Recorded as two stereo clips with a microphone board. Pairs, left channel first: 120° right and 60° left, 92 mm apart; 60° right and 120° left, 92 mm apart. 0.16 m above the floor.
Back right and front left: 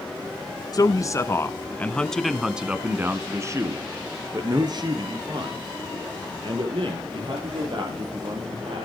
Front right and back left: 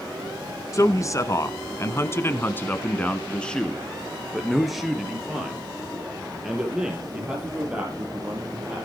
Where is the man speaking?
100° right, 1.7 m; by 8.8 s 40° left, 5.5 m.